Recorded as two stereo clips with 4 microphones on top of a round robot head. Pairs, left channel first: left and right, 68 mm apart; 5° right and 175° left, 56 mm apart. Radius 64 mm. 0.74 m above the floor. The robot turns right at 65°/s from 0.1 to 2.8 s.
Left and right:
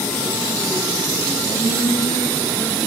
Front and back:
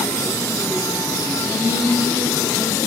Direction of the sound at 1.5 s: 110° right.